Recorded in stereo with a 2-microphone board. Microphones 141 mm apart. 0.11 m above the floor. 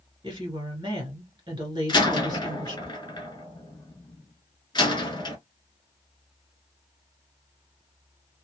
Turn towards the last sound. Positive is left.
turn(degrees=30)  # may be behind; listen again after turning